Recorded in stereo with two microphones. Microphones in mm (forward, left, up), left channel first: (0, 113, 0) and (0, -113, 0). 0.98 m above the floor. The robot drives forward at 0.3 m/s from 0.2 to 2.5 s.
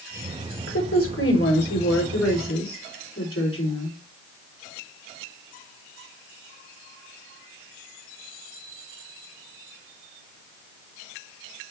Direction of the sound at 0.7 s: 75° left (ahead or behind).